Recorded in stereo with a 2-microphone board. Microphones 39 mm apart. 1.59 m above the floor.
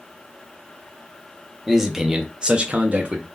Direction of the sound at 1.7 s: 5° right (ahead or behind).